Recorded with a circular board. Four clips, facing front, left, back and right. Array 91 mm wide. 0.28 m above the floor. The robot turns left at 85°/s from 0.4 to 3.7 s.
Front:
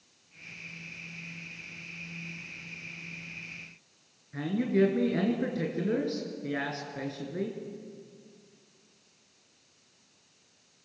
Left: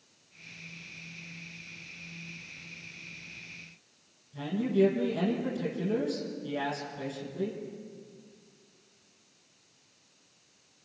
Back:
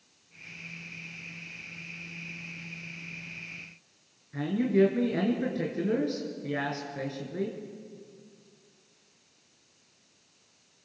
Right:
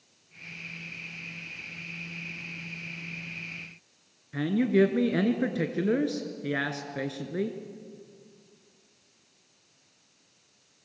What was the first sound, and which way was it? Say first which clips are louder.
A man speaking: right 4 dB, back 2 dB; 90° right.